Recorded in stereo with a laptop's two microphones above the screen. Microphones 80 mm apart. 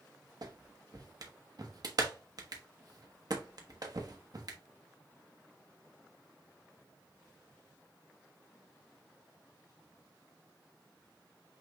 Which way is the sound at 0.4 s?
55° right (ahead or behind).